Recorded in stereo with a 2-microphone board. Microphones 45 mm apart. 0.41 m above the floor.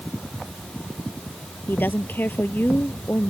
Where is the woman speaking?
45° left (ahead or behind).